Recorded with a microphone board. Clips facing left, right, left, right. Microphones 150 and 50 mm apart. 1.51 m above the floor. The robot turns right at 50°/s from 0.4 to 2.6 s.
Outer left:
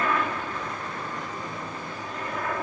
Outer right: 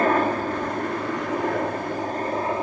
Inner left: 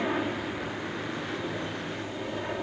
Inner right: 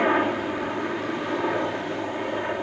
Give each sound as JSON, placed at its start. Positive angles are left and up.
{"t": 0.0, "sound": "a helicopter", "azimuth_deg": -135}